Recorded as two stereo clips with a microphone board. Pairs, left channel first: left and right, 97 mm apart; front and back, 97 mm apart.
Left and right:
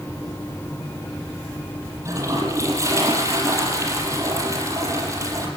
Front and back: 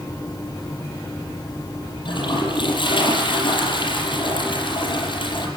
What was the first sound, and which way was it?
A toilet flushing, 35° right.